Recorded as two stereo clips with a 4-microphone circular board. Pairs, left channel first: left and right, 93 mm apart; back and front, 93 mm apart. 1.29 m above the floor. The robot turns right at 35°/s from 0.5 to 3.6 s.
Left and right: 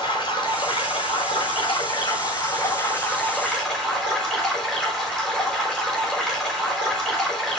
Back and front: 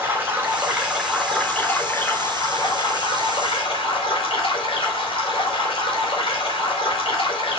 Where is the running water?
60° left, 3.5 m; by 7.6 s 170° left, 3.5 m.